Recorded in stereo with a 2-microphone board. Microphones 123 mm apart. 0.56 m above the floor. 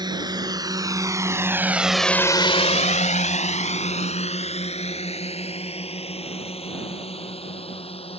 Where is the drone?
35° right (ahead or behind); by 8.2 s 50° left (ahead or behind).